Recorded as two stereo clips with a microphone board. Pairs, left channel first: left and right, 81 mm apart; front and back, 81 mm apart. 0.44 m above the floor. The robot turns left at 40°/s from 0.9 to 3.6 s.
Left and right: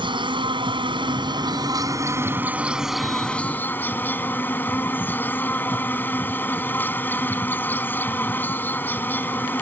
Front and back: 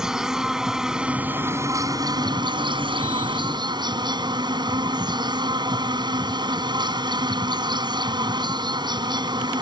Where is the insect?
95° right; by 9.6 s 155° left.